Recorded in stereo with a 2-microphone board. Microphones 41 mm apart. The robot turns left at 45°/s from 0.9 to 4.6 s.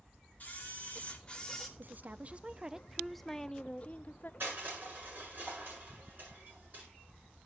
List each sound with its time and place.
0.4 s a camera shutter: 45° left, 2 m; by 1.7 s 5° left, 2 m
1.8 s a woman speaking: 125° right, 0.6 m; by 4.3 s 125° left, 0.6 m
4.4 s crushing: 55° right (ahead or behind), 8 m; by 6.9 s 45° right (ahead or behind), 8 m